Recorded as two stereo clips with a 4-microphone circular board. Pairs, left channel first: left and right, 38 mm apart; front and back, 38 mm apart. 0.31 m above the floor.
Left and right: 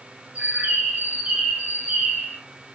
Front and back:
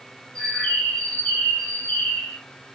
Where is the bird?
55° right, 1.7 m.